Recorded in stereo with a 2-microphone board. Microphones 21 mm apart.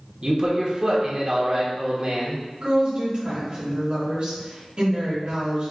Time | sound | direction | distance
0.2 | a man speaking | 35° right (ahead or behind) | 0.9 m
2.6 | a woman speaking | 50° right (ahead or behind) | 1.7 m